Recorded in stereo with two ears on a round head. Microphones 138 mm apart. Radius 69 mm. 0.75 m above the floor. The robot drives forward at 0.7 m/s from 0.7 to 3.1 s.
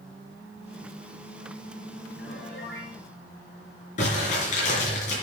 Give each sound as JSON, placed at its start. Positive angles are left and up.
{"t": 2.2, "sound": "a piano", "side_deg": 80, "distance_m": 6.0}
{"t": 4.0, "sound": "crumpling", "side_deg": 50, "distance_m": 4.5}